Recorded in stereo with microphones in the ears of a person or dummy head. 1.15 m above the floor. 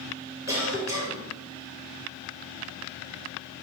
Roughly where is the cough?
Centre.